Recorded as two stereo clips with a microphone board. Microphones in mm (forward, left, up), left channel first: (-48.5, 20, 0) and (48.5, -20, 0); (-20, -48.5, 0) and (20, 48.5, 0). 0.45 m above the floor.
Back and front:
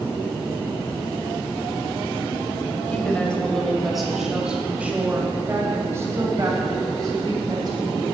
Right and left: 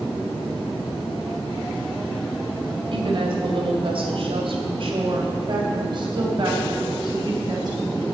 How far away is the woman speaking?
About 2.5 m.